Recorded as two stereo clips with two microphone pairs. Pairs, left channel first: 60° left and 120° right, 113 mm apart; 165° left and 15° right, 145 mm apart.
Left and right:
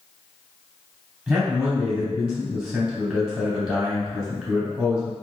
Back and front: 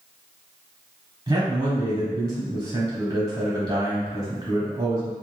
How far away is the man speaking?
About 0.9 m.